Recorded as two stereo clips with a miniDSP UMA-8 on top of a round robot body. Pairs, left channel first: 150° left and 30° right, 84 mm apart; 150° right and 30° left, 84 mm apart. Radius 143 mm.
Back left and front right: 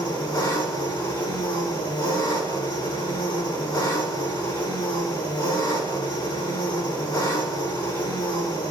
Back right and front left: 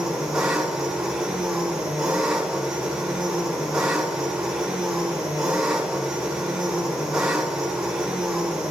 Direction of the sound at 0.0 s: 110° left.